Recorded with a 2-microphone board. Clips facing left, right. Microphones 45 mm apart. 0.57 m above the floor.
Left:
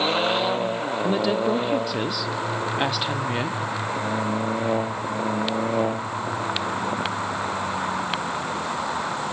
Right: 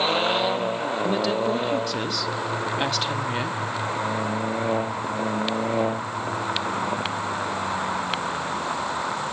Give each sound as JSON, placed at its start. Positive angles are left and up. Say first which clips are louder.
{"t": 1.0, "sound": "a woman speaking", "louder": "left 2 dB", "side_deg": 10, "distance_m": 0.7}